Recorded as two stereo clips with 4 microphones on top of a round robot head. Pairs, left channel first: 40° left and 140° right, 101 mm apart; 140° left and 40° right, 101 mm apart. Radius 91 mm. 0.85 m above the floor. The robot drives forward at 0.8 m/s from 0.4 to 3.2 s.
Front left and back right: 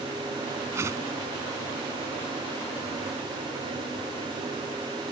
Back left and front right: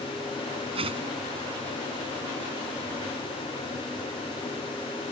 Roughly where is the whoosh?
Right.